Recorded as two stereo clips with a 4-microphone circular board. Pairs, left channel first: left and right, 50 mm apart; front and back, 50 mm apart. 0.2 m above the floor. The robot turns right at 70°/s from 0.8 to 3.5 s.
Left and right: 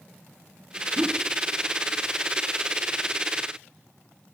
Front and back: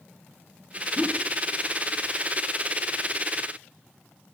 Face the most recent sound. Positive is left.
turn(degrees=60)